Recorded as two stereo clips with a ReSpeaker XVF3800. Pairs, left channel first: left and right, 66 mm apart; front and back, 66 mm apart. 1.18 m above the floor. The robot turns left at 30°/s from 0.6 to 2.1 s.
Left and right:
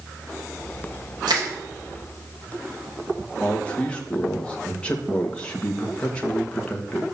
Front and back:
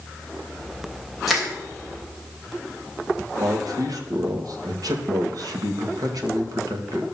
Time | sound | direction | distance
1.3 | crushing | 90° right | 4 m
3.4 | a man speaking | 160° left | 1.7 m